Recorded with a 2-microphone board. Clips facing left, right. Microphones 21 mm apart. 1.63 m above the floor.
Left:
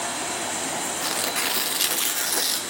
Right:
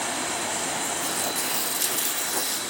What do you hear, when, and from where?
1.0 s tearing paper: 70° left (ahead or behind), 0.6 m